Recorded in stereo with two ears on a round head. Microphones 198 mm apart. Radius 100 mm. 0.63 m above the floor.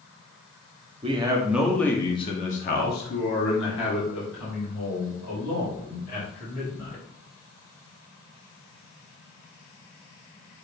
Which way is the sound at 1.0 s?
25° right (ahead or behind).